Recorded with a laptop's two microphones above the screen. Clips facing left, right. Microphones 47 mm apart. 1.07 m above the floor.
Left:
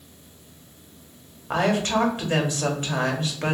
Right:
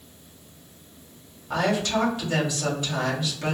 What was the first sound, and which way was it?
A woman speaking, 40° left (ahead or behind).